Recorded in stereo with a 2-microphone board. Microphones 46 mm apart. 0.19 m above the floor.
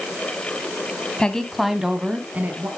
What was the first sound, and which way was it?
A woman speaking, 20° left (ahead or behind).